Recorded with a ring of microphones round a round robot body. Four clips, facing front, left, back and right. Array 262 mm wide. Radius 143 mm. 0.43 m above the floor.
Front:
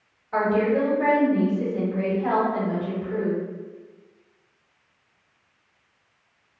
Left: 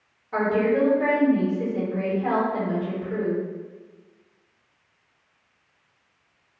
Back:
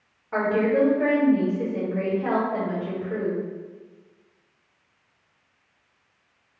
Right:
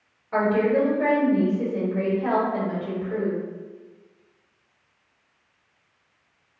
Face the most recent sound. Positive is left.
turn(degrees=-145)